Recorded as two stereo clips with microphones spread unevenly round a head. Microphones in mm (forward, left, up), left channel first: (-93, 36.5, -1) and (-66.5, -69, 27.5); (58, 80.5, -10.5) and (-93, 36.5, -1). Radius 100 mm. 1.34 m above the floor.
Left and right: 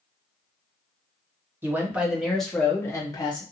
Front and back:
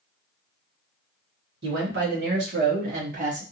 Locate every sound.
1.6 s a man speaking: 145° right, 1.1 m; by 3.4 s 155° left, 0.9 m